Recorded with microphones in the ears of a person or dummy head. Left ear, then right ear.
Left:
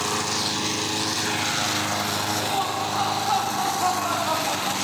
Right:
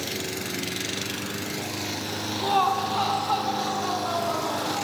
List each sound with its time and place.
2.4 s laughter: 50° right (ahead or behind), 0.7 m; by 4.8 s 45° left (ahead or behind), 1.8 m